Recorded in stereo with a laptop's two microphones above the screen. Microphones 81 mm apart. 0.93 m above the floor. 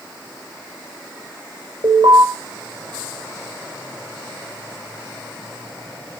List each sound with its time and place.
1.8 s an alarm: 65° right (ahead or behind), 7 m